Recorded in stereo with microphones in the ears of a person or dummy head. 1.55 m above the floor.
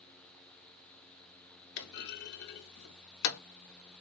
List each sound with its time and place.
1.8 s a clunk: 55° left (ahead or behind), 0.6 m